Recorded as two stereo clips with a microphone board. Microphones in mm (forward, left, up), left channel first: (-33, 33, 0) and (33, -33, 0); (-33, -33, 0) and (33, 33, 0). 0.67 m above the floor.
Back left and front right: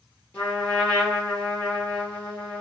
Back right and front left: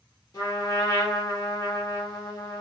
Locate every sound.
0.3 s a trumpet: 155° right, 1.5 m